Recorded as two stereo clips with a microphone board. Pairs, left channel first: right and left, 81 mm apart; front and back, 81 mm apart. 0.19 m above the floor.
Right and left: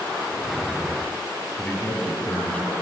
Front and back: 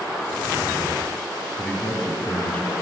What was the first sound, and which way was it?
A man speaking, 40° right.